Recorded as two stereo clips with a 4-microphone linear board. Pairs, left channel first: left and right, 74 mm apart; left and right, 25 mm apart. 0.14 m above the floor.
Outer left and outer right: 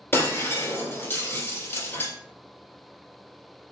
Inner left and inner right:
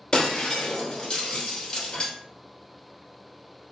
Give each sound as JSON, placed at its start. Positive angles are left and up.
{"t": 0.1, "sound": "breaking glass", "side_deg": 30, "distance_m": 1.9}